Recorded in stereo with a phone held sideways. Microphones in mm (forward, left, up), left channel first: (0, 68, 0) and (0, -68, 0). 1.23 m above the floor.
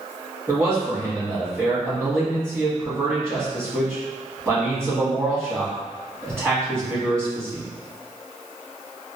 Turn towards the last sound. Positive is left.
turn(degrees=-20)  # may be behind; listen again after turning